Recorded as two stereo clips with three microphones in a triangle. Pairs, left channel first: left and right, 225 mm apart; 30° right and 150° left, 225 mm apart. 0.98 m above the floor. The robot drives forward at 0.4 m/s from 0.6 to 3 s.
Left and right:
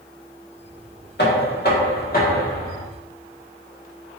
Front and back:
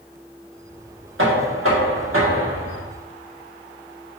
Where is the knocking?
130° left, 1.6 m; by 2.8 s 145° left, 2 m.